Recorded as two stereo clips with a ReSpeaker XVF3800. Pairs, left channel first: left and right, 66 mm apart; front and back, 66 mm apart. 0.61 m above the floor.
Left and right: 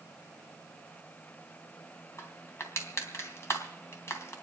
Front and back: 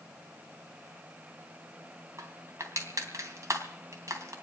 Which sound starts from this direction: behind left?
Crushing, at 2.2 s.